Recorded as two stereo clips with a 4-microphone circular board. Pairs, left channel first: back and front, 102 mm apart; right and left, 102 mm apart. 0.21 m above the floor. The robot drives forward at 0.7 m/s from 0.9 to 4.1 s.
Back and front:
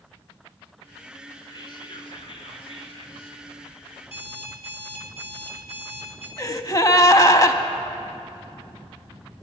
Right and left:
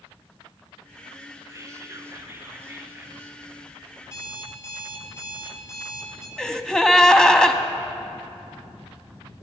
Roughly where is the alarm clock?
Behind right.